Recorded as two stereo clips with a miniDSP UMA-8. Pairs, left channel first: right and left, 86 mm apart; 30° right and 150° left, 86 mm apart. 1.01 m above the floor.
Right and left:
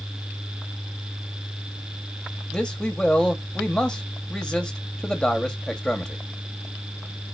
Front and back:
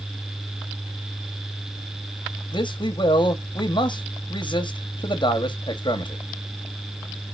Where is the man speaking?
10° right, 1.5 m.